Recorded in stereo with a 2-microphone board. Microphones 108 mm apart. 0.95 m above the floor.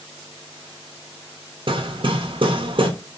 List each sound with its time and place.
1.7 s hammering: 55° right (ahead or behind), 0.8 m